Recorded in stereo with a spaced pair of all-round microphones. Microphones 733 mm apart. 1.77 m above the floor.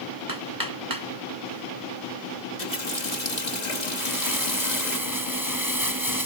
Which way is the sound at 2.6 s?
70° left (ahead or behind).